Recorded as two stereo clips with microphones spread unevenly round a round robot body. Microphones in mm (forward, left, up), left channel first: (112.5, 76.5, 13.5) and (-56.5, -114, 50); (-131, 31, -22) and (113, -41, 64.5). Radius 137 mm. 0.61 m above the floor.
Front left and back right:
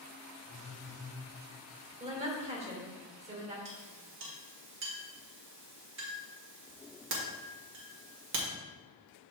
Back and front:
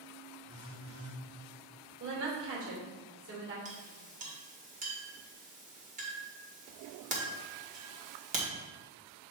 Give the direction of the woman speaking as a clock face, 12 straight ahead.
2 o'clock.